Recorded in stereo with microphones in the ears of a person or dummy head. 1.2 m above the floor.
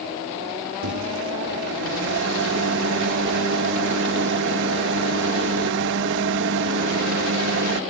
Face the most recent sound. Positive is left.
turn(degrees=-65)  # may be behind; listen again after turning